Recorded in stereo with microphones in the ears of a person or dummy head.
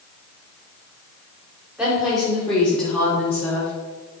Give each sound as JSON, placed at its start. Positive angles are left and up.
{"t": 1.8, "sound": "a woman speaking", "side_deg": 0, "distance_m": 3.5}